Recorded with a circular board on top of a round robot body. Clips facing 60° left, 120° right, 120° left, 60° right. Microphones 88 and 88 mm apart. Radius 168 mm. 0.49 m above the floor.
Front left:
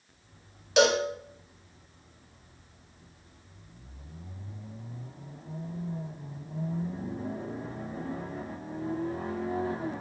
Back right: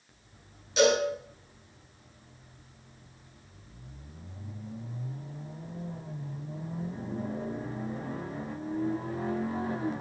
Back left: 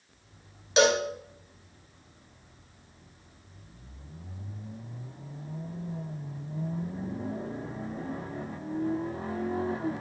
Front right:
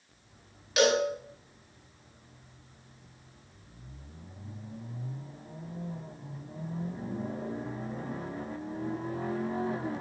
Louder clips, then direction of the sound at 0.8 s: Front left 1 dB, back left 2 dB; 55° left.